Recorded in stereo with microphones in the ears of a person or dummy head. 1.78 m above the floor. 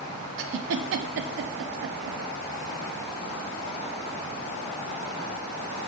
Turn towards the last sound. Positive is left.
turn(degrees=-70)  # may be behind; listen again after turning